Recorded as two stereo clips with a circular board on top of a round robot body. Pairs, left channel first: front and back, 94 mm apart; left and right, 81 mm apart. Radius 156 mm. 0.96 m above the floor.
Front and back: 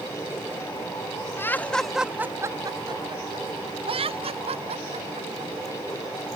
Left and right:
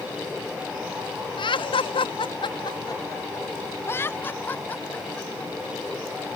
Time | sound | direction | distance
1.4 | laughter | 65° left | ?